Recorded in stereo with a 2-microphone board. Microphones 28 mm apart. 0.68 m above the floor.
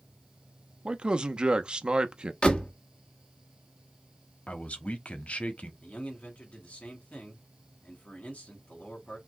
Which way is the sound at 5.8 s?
60° left (ahead or behind).